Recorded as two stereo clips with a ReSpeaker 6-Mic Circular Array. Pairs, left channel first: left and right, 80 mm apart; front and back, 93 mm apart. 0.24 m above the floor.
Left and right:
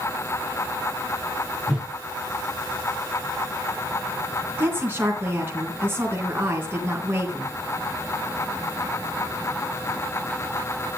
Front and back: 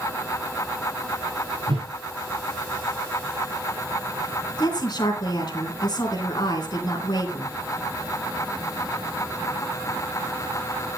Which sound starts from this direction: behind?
A whoosh, at 1.7 s.